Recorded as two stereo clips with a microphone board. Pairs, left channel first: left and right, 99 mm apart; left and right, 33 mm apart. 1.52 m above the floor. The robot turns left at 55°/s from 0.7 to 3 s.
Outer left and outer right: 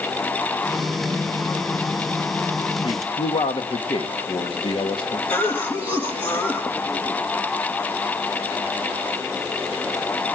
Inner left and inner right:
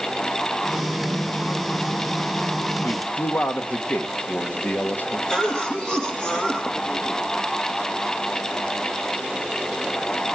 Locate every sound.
2.8 s a man speaking: 70° left (ahead or behind), 1.8 m; by 5.2 s 60° left (ahead or behind), 1.8 m
5.3 s a cough: 20° left (ahead or behind), 1.7 m